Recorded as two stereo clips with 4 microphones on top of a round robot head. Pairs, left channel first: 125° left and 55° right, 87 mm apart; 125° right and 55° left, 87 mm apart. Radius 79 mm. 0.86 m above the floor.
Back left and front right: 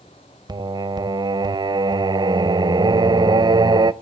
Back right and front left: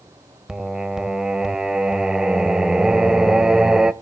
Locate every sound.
0.5 s singing: 30° right, 0.6 m